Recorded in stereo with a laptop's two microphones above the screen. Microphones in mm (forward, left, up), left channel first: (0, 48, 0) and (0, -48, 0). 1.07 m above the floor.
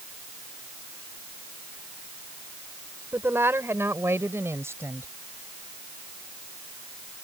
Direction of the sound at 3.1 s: 25° right (ahead or behind).